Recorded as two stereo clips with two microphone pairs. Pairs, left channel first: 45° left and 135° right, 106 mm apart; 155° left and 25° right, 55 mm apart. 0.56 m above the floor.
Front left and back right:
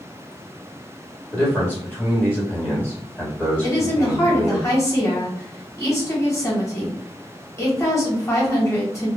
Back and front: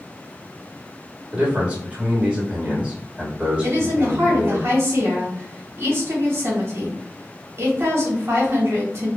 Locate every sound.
1.3 s a man speaking: straight ahead, 1.3 m
3.6 s a woman speaking: 10° right, 1.1 m